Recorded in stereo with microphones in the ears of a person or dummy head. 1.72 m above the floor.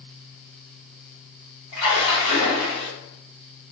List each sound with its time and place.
1.7 s a splash: 25° left (ahead or behind), 1.6 m